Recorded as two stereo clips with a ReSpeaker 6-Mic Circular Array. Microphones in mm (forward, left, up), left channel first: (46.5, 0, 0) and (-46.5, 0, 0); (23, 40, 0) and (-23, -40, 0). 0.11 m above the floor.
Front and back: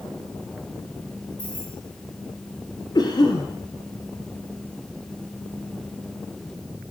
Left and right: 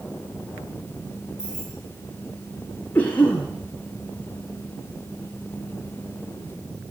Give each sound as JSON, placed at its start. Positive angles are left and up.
{"t": 1.4, "sound": "keys jangling", "azimuth_deg": -40, "distance_m": 7.0}
{"t": 3.0, "sound": "a cough", "azimuth_deg": -5, "distance_m": 2.0}